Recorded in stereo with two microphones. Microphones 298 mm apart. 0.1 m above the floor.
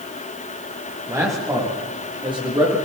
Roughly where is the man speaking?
Centre.